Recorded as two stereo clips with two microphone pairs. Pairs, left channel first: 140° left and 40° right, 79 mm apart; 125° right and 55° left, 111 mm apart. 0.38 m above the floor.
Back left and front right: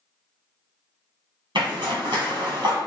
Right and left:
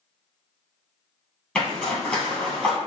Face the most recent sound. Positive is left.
turn(degrees=-45)